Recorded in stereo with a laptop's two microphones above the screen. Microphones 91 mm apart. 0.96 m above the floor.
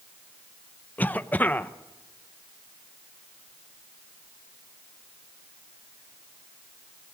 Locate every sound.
1.0 s a cough: 20° left (ahead or behind), 0.7 m